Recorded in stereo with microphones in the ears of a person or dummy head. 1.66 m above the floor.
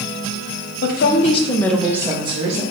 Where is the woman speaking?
60° left (ahead or behind), 0.8 m; by 2.6 s 40° right (ahead or behind), 0.9 m.